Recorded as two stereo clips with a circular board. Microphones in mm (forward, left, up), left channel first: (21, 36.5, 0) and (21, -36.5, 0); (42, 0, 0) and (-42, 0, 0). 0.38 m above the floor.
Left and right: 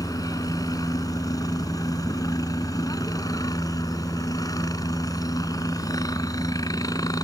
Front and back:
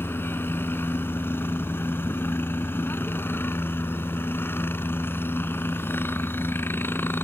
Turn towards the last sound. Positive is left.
turn(degrees=65)